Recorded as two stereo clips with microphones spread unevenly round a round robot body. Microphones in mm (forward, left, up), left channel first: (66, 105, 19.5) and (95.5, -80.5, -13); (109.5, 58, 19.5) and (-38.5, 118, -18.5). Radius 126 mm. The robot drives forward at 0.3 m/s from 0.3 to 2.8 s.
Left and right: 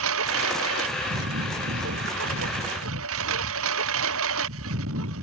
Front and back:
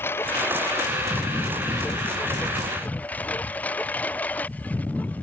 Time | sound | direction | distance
0.0 | a lawn mower | 105° right | ?